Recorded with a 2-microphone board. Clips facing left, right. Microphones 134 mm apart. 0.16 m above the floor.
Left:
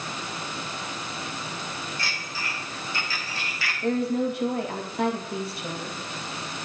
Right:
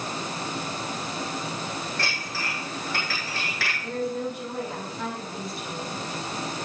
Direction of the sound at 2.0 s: 75° right (ahead or behind).